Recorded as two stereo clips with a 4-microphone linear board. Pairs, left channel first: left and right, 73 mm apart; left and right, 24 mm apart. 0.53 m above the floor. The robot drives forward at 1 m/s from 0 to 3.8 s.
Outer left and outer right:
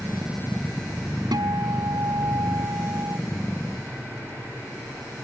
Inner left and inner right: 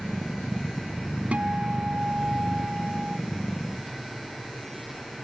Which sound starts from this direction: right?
A guitar, at 1.3 s.